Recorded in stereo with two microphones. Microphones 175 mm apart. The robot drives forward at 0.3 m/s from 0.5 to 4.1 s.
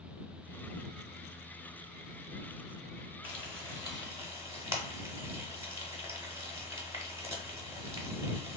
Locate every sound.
3.2 s frying: 10° right (ahead or behind), 0.7 m; by 8.6 s 15° right (ahead or behind), 0.6 m